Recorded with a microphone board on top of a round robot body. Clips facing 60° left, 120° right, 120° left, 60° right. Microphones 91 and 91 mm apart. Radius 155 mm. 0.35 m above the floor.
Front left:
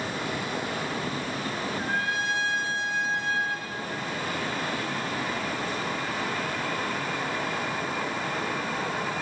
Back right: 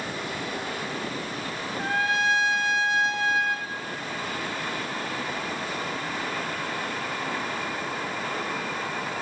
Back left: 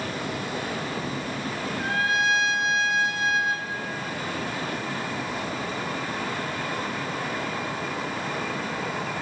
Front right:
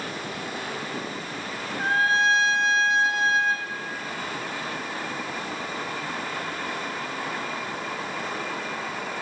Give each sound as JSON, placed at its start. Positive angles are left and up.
{"t": 1.8, "sound": "a trumpet", "azimuth_deg": -120, "distance_m": 1.3}